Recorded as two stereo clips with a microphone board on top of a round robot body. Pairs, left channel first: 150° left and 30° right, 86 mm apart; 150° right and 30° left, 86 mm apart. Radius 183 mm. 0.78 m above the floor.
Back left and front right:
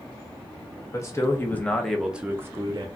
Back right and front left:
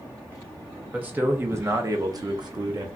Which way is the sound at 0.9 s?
100° left.